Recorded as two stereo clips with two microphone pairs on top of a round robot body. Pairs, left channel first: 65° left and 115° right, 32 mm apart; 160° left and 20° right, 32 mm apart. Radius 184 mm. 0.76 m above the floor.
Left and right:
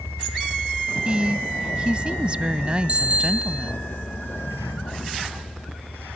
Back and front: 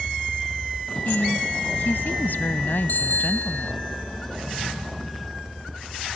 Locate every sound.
0.0 s a vehicle: 95° left; by 6.2 s 65° left
1.1 s a woman speaking: 175° right
2.9 s a bicycle bell: 170° right